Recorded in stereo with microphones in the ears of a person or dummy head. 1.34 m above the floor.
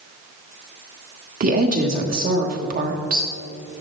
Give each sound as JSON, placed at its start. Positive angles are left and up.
{"t": 1.4, "sound": "a woman speaking", "side_deg": -50, "distance_m": 1.4}